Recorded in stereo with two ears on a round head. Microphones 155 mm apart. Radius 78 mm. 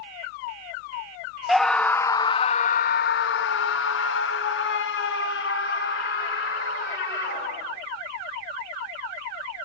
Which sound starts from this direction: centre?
A scream, at 1.5 s.